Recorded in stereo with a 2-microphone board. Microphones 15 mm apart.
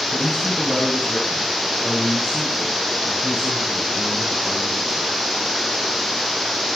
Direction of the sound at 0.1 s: 70° left (ahead or behind).